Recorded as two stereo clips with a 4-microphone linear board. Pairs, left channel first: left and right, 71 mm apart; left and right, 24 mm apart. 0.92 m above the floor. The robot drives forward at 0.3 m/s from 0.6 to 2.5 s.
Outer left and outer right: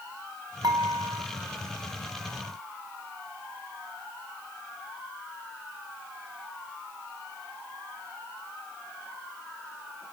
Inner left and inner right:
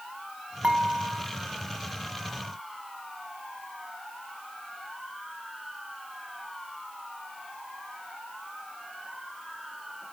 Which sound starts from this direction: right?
Dishes clattering, at 0.6 s.